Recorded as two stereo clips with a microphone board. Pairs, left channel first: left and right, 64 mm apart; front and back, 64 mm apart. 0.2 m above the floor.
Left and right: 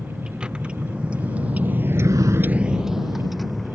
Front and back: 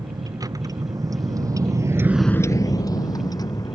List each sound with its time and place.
0.0 s a vehicle: 165° right; by 3.8 s straight ahead